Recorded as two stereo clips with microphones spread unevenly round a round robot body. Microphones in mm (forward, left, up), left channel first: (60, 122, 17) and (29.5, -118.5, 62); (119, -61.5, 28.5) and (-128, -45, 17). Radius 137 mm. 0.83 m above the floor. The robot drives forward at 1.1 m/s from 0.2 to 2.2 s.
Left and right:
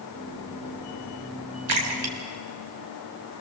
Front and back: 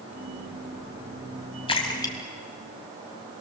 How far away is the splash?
About 4 m.